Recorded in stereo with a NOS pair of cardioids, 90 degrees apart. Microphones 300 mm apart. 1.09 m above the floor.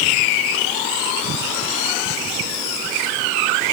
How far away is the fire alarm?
I don't hear a fire alarm.